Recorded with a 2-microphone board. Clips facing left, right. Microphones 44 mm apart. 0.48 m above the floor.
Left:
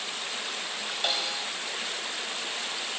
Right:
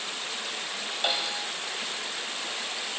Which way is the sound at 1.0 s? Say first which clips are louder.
Right 2 dB; 10° right (ahead or behind).